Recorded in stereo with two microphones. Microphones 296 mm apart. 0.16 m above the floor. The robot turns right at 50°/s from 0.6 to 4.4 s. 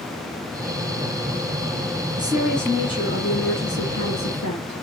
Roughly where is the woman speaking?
Ahead.